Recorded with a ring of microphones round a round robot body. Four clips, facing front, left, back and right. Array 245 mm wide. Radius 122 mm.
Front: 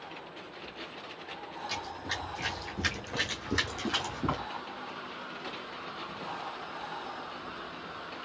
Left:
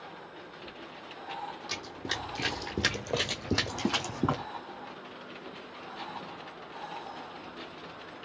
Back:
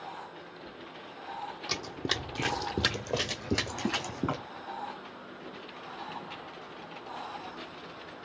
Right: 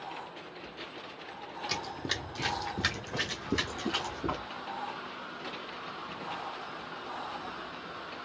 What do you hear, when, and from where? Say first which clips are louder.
1.7 s running footsteps: right 2 dB, back 3 dB; 155° right, 1.2 m; by 4.4 s 105° left, 2.5 m